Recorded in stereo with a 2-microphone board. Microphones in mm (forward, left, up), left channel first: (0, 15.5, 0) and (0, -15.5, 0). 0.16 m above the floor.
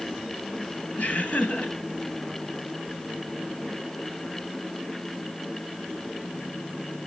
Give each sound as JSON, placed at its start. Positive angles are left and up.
{"t": 1.0, "sound": "laughter", "side_deg": 60, "distance_m": 2.5}